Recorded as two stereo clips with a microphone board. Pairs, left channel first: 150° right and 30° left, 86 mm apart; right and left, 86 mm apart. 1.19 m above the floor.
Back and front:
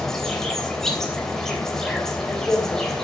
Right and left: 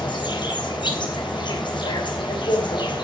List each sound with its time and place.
0.0 s an insect: 65° right, 3 m